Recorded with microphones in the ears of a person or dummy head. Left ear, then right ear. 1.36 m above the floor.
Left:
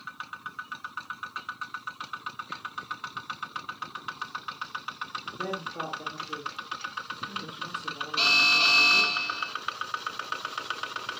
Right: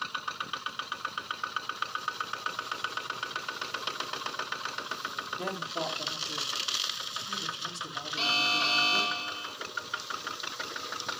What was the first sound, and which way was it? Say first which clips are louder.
A woman speaking: left 2 dB; 20° right (ahead or behind).